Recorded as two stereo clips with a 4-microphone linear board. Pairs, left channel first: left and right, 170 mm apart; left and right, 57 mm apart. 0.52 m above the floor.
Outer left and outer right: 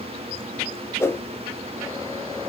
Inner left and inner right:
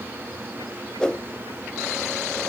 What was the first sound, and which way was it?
A whoosh, 15° left (ahead or behind).